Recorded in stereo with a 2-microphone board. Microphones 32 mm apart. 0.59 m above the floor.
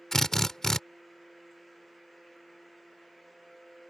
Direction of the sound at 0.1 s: 15° left (ahead or behind).